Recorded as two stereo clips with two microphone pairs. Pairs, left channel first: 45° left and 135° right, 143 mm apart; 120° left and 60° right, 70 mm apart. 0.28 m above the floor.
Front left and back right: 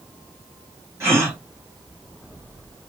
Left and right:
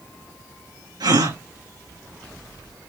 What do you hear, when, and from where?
1.0 s a gasp: 60° right, 6.5 m